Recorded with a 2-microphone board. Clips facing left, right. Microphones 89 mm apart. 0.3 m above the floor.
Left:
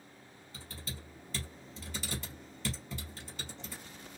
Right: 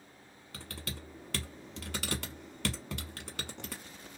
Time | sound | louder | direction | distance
0.5 | typing on a keyboard | right 3 dB | 70° right (ahead or behind) | 0.9 m